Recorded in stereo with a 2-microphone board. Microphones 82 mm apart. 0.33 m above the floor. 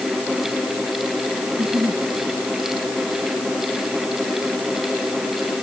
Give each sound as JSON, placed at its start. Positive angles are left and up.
{"t": 1.5, "sound": "a giggle", "side_deg": -30}